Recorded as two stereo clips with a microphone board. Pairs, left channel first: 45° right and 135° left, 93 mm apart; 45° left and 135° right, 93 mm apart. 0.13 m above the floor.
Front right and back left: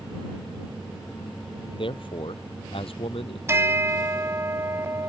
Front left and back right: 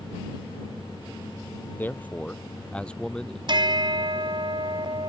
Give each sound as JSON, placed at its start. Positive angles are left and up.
{"t": 1.7, "sound": "a man speaking", "azimuth_deg": -25}
{"t": 3.5, "sound": "a bell", "azimuth_deg": -165}